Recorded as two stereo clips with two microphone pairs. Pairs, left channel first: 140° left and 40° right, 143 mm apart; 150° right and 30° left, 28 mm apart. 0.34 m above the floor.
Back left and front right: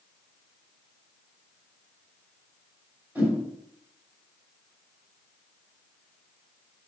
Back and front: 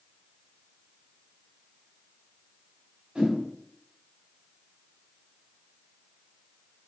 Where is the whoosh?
30° left, 1.5 m.